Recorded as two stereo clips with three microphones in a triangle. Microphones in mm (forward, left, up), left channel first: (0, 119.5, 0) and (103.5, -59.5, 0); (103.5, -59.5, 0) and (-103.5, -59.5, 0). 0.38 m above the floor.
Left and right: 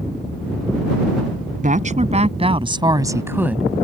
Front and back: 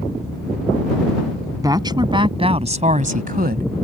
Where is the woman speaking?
110° right; by 3.7 s 145° right.